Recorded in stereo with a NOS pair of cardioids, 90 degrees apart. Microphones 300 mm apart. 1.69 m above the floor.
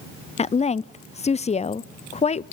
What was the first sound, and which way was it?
A woman speaking, 20° left.